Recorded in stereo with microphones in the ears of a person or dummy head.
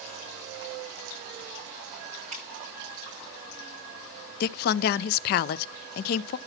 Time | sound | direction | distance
2.3 | dripping | 40° right (ahead or behind) | 9 m
4.4 | a woman speaking | 50° left (ahead or behind) | 0.7 m